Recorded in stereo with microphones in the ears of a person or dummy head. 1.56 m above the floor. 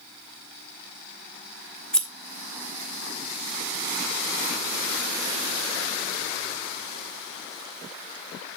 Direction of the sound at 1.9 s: 10° left (ahead or behind).